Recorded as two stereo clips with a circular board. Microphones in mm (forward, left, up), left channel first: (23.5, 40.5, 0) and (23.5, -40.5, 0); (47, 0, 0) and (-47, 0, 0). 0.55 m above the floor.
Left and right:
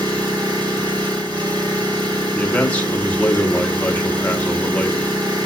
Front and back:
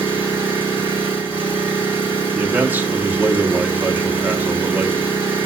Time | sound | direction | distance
0.0 | an engine running | 110° right | 3.5 m
2.3 | a man speaking | 140° left | 1.4 m